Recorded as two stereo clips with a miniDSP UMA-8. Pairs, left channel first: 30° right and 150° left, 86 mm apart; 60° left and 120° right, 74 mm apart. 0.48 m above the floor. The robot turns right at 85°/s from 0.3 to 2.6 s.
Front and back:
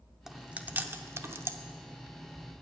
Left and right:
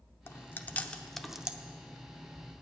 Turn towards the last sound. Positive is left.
turn(degrees=-95)